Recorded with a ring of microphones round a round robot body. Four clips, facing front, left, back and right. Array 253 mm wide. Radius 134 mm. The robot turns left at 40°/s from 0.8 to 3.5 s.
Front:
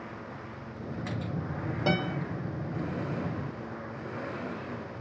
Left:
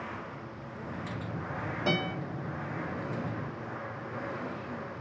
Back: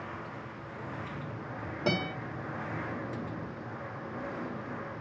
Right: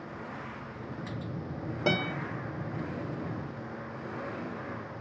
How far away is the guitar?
About 1.6 m.